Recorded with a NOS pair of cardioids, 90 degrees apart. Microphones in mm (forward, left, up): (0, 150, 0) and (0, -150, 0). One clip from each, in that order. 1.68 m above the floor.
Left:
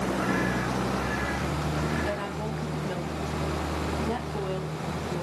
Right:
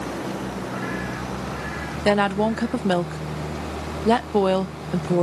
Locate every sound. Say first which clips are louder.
2.0 s a woman speaking: right 11 dB; 70° right, 0.5 m